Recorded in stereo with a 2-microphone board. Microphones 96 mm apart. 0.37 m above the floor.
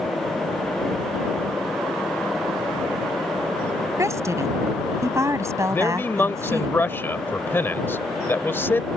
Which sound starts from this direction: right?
A woman speaking, at 4.0 s.